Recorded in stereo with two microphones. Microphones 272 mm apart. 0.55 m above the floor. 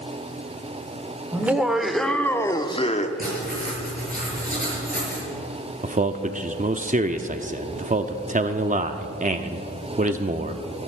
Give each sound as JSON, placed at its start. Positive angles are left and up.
{"t": 1.3, "sound": "laughter", "side_deg": -5, "distance_m": 1.4}
{"t": 3.2, "sound": "writing", "side_deg": -30, "distance_m": 6.5}
{"t": 5.8, "sound": "a man speaking", "side_deg": -30, "distance_m": 0.7}